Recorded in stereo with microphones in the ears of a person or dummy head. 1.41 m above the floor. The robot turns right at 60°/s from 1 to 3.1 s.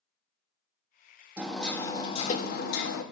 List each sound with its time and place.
1.4 s hammering: 10° right, 1.8 m; by 3.0 s 90° left, 1.8 m